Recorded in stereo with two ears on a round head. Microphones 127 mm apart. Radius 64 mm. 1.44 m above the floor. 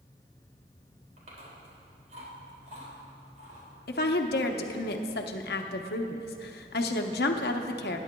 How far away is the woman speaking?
About 0.9 m.